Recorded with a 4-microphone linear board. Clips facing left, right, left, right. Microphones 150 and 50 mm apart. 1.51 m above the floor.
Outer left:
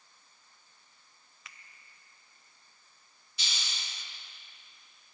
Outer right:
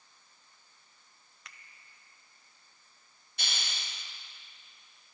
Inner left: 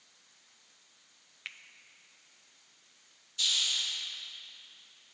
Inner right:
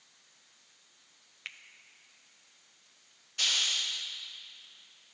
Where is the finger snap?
Centre (ahead or behind), 0.6 m.